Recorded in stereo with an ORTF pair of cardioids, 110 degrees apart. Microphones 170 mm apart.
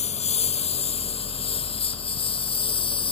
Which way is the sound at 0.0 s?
40° left.